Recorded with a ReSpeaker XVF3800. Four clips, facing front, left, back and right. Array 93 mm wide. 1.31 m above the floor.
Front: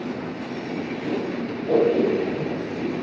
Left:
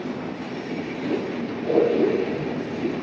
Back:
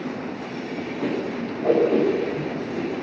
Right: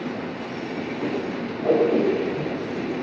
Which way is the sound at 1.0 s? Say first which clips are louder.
Left 2 dB, back 2 dB; 155° right.